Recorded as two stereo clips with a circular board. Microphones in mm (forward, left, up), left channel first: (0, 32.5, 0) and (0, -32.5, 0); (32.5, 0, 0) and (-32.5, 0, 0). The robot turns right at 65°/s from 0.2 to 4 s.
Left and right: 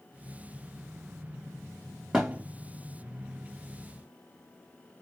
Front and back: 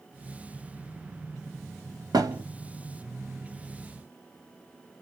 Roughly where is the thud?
Behind.